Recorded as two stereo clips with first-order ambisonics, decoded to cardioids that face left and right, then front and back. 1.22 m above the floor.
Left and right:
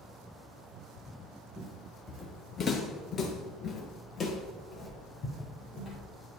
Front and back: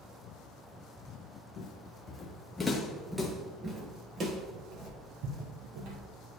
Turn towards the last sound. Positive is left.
turn(degrees=160)